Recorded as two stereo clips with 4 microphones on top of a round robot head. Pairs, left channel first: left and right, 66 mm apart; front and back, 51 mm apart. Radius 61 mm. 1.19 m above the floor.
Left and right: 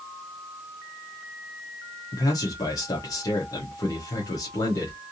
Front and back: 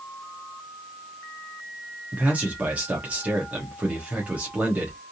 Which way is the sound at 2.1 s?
120° left.